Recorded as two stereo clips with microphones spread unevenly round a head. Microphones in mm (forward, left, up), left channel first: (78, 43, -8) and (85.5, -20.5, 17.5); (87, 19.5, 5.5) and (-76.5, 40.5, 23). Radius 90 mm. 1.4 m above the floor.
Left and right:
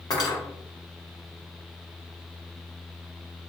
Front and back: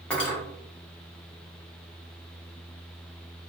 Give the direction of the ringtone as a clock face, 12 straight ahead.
I don't hear a ringtone.